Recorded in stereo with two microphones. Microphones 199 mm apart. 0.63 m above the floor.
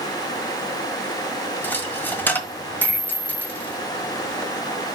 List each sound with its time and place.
1.6 s a dropped coin: 10° left (ahead or behind), 1.4 m